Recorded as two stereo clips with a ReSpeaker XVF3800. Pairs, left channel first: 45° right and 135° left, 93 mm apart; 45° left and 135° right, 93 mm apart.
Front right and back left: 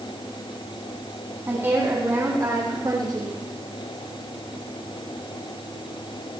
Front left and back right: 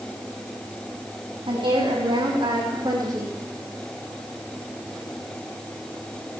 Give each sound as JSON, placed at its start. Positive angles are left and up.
{"t": 1.5, "sound": "a woman speaking", "azimuth_deg": -160, "distance_m": 6.0}